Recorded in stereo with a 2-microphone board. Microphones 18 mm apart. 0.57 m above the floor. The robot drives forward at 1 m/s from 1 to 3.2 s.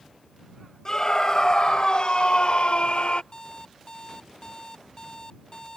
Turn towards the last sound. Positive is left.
turn(degrees=40)  # may be behind; listen again after turning